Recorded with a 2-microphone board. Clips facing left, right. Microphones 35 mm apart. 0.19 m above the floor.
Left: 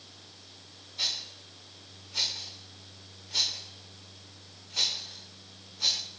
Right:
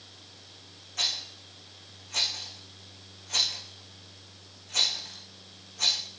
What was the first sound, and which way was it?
A rattle, 75° right (ahead or behind).